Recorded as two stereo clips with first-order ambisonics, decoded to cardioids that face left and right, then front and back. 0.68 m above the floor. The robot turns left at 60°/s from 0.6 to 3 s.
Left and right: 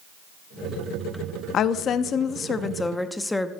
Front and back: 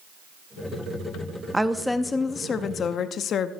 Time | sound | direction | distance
1.5 | a woman speaking | 100° left | 0.6 m